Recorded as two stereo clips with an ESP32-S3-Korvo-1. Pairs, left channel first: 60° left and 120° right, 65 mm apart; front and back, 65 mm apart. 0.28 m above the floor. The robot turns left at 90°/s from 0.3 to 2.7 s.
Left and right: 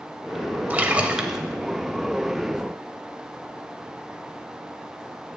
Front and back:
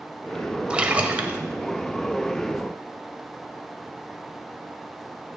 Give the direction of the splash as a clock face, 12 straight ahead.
4 o'clock.